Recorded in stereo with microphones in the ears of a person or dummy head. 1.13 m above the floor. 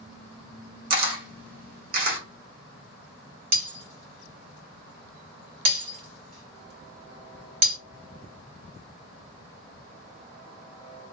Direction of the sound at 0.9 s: 55° right (ahead or behind).